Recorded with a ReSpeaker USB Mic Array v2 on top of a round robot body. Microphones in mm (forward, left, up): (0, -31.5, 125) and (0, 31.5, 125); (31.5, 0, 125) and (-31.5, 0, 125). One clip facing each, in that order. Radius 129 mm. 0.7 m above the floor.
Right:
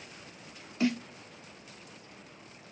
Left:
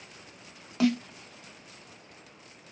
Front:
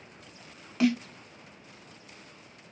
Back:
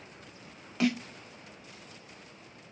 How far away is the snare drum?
About 1.0 m.